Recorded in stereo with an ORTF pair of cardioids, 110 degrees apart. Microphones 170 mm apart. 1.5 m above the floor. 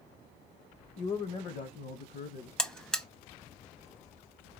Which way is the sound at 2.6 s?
5° left.